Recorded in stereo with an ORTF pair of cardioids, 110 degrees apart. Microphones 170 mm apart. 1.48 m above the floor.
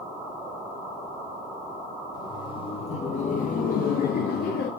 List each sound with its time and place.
2.1 s laughter: 25° left, 2 m; by 4.7 s 80° left, 2.0 m